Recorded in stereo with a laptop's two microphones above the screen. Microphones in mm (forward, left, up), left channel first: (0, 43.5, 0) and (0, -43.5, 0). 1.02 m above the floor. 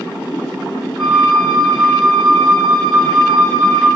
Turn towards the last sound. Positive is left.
turn(degrees=-5)  # may be behind; listen again after turning